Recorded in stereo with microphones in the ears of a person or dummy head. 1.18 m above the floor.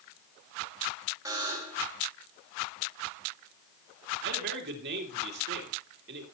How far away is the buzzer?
About 4.5 m.